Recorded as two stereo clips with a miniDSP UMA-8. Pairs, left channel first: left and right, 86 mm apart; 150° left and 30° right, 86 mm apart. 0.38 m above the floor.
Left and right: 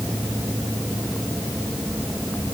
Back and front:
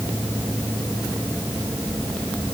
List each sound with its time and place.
Only background noise.